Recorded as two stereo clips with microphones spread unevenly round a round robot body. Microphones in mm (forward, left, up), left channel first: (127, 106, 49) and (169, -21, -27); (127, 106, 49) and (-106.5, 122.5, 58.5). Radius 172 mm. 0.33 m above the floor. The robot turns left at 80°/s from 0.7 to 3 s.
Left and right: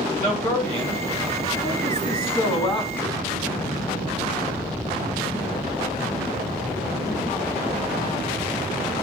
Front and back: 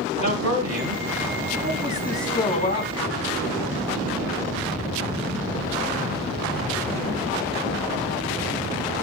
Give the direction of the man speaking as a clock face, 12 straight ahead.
5 o'clock.